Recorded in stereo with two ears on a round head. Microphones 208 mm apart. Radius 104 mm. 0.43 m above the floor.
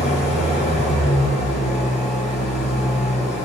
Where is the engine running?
30° left (ahead or behind), 9 m.